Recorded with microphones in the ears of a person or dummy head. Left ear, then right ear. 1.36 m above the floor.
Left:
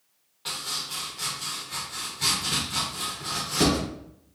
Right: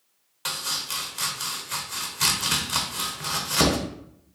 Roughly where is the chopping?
Right.